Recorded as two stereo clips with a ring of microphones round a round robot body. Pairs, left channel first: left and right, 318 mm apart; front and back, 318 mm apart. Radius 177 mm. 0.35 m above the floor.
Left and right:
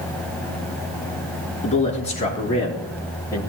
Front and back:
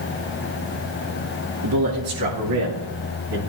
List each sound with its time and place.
1.6 s a man speaking: 160° left, 5.5 m; by 3.4 s 170° left, 4.5 m